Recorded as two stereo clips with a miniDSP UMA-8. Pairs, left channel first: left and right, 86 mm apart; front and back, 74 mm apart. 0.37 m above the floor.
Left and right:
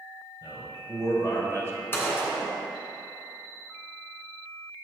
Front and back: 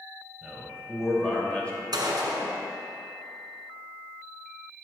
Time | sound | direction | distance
0.4 | a man speaking | 95° left | 2 m
1.9 | a gunshot | 155° left | 1.4 m